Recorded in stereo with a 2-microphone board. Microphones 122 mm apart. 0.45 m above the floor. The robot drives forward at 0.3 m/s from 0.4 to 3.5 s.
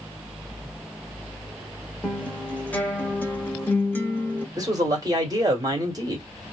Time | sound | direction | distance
2.0 | a guitar | 10° left (ahead or behind) | 0.8 m
4.6 | a man speaking | 30° right (ahead or behind) | 1.2 m